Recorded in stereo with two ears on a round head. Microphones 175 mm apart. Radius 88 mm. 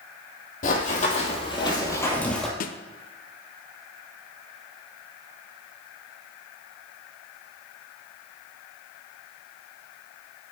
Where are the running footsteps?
45° left (ahead or behind), 3 m; by 2.5 s centre (ahead or behind), 2 m.